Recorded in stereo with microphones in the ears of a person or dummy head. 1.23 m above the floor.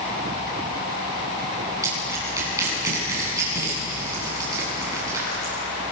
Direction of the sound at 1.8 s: 20° right (ahead or behind).